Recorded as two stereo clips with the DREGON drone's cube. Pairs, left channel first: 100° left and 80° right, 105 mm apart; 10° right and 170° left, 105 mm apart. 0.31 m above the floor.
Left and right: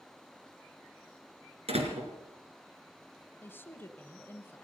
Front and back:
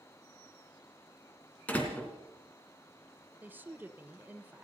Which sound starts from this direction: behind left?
A woman speaking, at 3.4 s.